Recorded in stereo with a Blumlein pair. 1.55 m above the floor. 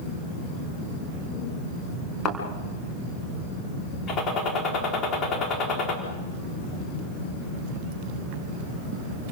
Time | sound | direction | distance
2.2 | a thud | 25° left | 4 m
4.1 | a gunshot | 30° left | 4 m